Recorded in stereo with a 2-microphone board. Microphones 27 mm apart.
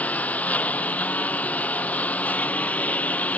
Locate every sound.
0.0 s a lawn mower: 85° left